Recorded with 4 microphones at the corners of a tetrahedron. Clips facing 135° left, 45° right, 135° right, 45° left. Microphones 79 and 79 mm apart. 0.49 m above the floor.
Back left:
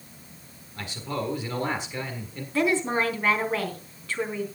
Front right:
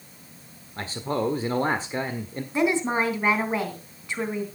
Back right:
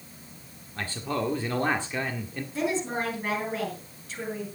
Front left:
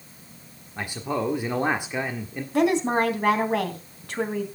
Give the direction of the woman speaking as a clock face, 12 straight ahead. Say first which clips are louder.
Front right 1 dB, front left 8 dB; 11 o'clock.